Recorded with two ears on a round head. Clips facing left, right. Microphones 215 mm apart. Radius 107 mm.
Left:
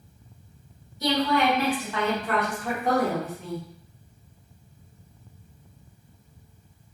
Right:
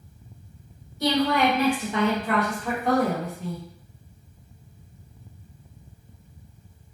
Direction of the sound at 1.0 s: 45° right (ahead or behind).